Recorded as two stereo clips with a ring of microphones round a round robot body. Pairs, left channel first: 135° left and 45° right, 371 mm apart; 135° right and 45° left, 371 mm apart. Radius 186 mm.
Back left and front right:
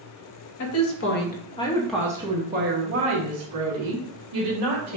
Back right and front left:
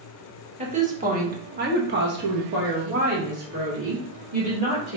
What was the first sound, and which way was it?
A woman speaking, 110° left.